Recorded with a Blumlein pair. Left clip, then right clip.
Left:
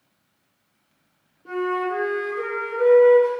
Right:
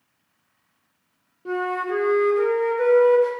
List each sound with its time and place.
1.4 s a flute: 20° right, 0.6 m